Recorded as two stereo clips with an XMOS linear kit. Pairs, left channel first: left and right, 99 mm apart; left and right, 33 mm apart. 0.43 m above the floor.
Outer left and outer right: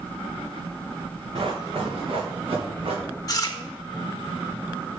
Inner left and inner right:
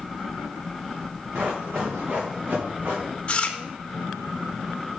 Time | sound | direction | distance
1.4 | running footsteps | 60° right (ahead or behind) | 1.6 m
3.3 | chewing | 35° left (ahead or behind) | 0.6 m